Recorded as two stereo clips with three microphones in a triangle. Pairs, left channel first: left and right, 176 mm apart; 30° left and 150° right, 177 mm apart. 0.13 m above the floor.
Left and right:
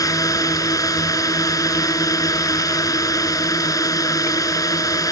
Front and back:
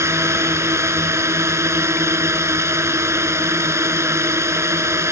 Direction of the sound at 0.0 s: 145° left.